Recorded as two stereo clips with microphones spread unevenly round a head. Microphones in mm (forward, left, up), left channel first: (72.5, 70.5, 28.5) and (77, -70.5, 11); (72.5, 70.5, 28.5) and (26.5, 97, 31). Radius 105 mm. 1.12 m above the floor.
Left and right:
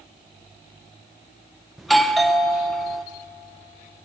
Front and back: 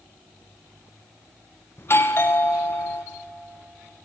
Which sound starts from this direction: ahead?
A doorbell, at 1.8 s.